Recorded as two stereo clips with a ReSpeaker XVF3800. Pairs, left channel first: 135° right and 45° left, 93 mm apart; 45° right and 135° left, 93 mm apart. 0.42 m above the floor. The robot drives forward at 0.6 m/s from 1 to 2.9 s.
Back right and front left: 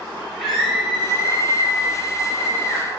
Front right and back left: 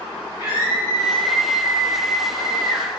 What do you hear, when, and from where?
0.4 s a scream: 135° left, 2.0 m; by 2.9 s 150° left, 3 m